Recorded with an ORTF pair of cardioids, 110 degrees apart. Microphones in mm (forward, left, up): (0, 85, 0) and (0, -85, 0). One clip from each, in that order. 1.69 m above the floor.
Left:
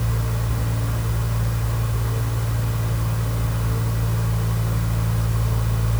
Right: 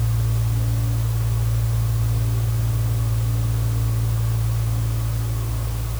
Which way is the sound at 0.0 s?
55° left.